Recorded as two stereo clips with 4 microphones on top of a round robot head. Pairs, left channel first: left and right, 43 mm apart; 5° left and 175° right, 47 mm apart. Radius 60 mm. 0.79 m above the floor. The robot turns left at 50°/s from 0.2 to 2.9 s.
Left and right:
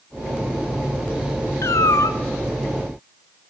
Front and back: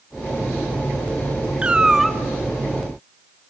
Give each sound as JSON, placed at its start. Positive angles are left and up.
{"t": 1.6, "sound": "a cat meowing", "azimuth_deg": 120, "distance_m": 1.1}